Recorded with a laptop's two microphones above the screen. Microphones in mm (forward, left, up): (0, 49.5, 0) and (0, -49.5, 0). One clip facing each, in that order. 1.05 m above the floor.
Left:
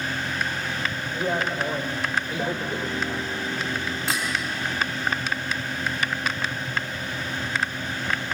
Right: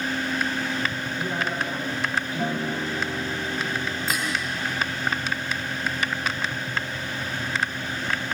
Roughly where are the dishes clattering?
Left.